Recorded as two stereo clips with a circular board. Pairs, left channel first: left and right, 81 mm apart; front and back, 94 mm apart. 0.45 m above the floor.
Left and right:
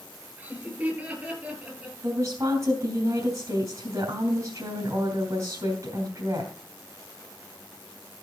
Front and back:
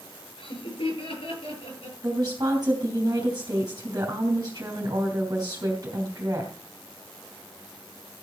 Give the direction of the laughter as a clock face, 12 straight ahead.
1 o'clock.